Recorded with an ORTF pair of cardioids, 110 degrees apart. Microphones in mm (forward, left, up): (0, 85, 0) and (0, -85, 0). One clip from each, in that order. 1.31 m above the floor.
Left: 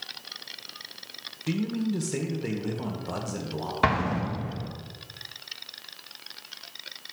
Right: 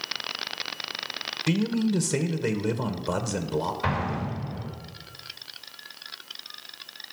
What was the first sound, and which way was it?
A man speaking, 30° right.